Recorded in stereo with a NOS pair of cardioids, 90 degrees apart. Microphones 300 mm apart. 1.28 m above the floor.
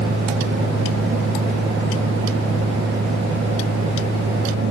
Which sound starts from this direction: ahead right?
A fan, at 0.0 s.